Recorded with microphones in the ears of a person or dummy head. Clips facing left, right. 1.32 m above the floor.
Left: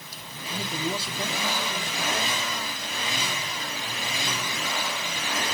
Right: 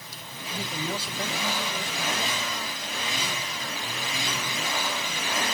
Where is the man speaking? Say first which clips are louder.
Left 2 dB; 30° left (ahead or behind), 6 m.